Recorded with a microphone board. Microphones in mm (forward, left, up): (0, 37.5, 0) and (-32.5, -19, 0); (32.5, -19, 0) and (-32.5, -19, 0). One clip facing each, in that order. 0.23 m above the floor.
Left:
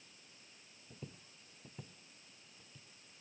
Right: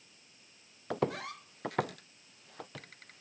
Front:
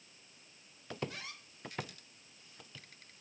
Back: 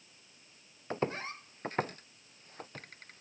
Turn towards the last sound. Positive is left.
turn(degrees=-140)